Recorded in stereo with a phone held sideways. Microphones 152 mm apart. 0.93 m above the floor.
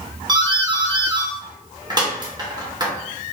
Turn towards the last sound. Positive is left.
turn(degrees=-30)  # may be behind; listen again after turning